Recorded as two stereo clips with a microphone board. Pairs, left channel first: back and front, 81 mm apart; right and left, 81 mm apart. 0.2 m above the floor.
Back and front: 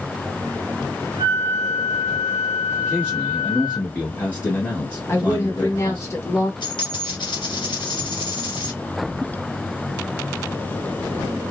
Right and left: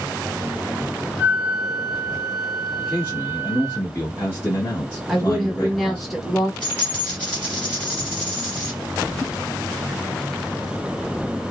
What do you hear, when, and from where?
1.2 s a flute: 30° left, 1.4 m
2.8 s a man speaking: 125° right, 1.2 m
5.1 s a woman speaking: straight behind, 1.1 m
6.6 s a dropped coin: 160° right, 1.3 m